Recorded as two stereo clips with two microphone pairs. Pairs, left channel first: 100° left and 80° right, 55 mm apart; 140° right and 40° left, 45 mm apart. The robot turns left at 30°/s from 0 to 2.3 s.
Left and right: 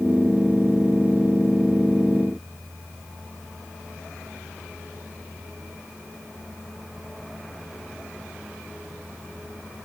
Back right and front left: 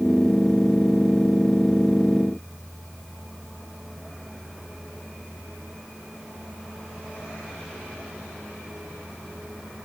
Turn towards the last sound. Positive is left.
No sound to turn to.